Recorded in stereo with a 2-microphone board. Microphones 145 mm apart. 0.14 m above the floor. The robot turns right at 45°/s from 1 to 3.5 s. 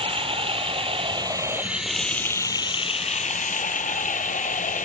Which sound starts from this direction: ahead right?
Running water, at 0.0 s.